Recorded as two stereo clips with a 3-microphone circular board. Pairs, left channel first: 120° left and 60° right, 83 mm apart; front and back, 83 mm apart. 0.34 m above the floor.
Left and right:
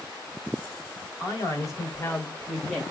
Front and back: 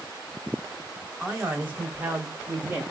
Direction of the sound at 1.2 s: 115° left.